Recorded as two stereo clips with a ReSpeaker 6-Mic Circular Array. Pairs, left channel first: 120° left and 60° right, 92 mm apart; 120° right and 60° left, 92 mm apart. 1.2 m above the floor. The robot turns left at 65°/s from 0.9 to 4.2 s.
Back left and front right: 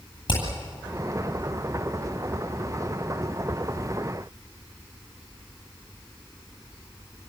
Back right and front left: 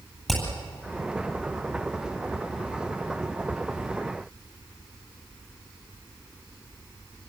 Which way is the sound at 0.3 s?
155° left.